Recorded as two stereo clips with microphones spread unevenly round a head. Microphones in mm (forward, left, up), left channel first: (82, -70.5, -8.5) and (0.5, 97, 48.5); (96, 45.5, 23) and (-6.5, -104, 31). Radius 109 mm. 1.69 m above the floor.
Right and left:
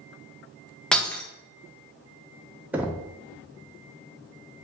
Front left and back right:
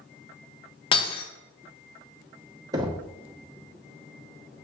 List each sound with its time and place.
0.9 s breaking glass: 60° left, 0.8 m
2.7 s knocking: 175° left, 0.5 m